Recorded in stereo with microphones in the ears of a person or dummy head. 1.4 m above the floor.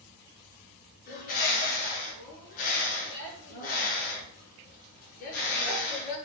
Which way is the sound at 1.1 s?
45° left (ahead or behind).